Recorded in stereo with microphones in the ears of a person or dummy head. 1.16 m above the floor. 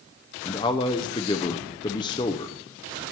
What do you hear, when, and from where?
0.5 s a man speaking: 15° left (ahead or behind), 0.6 m